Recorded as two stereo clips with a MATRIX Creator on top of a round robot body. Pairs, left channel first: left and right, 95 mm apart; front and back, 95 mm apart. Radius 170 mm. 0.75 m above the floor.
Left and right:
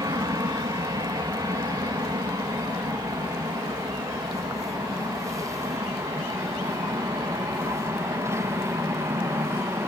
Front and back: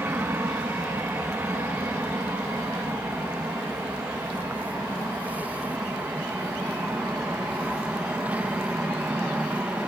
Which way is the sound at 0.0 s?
120° right.